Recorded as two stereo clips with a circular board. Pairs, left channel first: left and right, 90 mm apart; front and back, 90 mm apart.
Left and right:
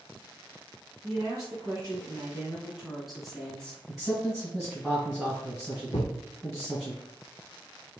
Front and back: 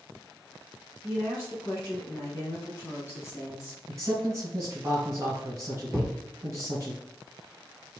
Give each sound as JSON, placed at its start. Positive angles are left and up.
{"t": 1.0, "sound": "a woman speaking", "azimuth_deg": -80, "distance_m": 1.6}
{"t": 3.9, "sound": "a man speaking", "azimuth_deg": -175, "distance_m": 1.8}
{"t": 5.9, "sound": "a thud", "azimuth_deg": 95, "distance_m": 0.6}